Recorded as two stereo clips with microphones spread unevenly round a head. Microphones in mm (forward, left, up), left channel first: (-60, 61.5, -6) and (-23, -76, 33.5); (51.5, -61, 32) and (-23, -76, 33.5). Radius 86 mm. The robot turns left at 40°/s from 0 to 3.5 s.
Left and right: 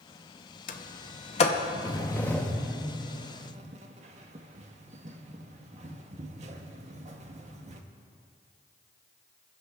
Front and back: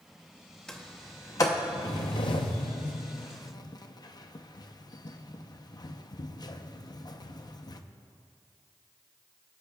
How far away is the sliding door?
About 0.7 m.